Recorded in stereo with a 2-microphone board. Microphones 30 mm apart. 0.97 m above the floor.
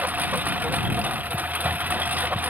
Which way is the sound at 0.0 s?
80° right.